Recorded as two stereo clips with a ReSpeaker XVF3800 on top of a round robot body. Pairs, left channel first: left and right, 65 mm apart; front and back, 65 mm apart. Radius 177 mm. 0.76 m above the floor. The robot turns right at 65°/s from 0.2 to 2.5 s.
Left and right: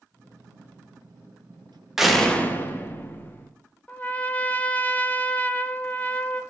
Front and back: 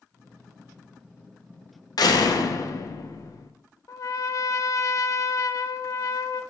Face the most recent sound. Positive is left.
turn(degrees=25)